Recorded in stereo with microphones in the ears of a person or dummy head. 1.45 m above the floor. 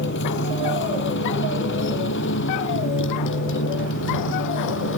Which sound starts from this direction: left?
A motorcycle, at 0.0 s.